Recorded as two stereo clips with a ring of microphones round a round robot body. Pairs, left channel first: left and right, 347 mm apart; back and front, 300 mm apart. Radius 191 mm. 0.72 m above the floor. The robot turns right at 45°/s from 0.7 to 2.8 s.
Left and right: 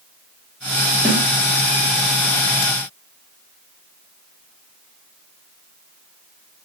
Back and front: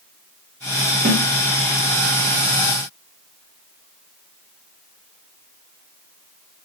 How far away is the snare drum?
About 1.1 m.